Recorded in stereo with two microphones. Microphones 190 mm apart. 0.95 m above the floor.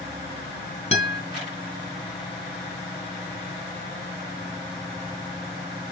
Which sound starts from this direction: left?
A guitar, at 0.9 s.